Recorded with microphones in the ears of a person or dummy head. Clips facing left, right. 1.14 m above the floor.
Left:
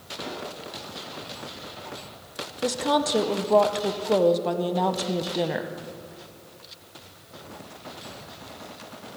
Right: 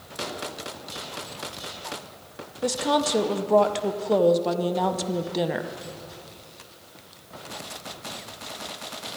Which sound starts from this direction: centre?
A woman speaking, at 2.6 s.